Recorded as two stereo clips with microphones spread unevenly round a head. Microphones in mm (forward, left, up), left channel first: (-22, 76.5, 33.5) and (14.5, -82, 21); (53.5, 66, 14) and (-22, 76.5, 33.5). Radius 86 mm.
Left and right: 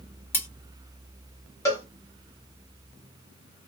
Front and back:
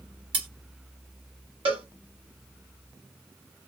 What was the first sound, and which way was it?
Cutlery clinking, straight behind.